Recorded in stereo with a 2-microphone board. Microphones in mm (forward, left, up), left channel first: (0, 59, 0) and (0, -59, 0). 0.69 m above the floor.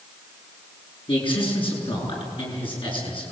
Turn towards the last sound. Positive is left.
turn(degrees=45)  # may be behind; listen again after turning